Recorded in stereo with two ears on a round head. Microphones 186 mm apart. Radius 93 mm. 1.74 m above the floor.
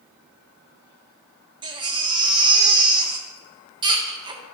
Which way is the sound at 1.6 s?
20° right (ahead or behind).